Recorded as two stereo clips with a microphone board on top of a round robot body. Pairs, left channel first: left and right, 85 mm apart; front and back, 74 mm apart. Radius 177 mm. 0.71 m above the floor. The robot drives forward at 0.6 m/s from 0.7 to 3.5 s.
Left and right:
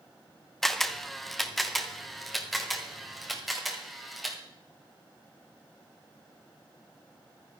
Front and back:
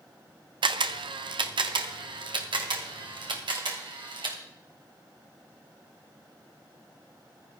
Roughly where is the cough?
No cough in this recording.